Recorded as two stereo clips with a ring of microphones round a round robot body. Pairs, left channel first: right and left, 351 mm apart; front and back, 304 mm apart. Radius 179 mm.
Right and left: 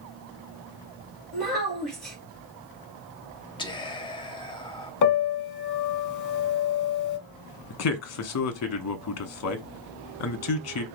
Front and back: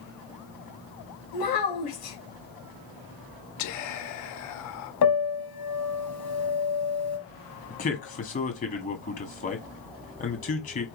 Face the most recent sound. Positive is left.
turn(degrees=-60)